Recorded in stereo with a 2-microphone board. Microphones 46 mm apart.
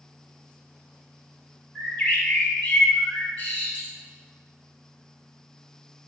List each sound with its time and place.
1.8 s a bird: 35° left (ahead or behind), 0.7 m